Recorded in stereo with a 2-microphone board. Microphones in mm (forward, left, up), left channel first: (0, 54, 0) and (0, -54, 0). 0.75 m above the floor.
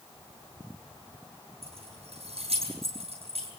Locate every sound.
1.6 s keys jangling: 65° right (ahead or behind), 10 m